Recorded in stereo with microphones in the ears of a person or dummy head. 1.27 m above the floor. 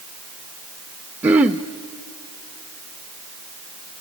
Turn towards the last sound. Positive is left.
turn(degrees=-5)  # may be behind; listen again after turning